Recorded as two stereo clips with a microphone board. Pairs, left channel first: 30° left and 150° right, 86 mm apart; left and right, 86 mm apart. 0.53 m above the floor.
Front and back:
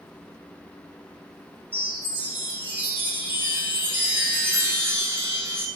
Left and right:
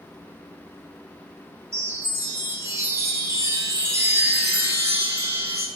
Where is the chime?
105° right, 0.6 m.